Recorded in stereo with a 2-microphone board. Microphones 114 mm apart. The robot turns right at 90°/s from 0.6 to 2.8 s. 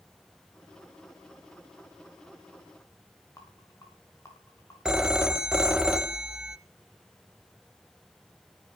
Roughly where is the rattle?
Left.